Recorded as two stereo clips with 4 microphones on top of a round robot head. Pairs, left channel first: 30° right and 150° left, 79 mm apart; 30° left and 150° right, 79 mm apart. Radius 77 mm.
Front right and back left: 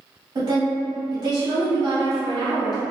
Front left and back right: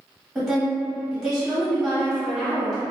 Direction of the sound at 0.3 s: 130° left.